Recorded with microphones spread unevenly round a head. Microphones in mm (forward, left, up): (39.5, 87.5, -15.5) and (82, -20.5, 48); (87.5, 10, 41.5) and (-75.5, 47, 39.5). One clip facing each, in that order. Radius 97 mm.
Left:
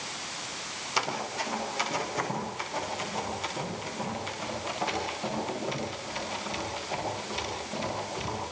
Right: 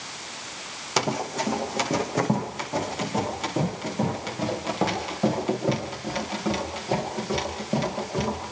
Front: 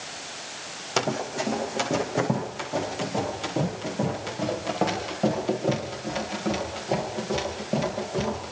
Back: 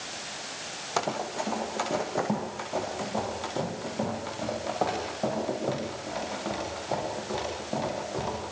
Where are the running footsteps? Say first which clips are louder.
Right 6 dB, front 3 dB; 80° right, 3 m.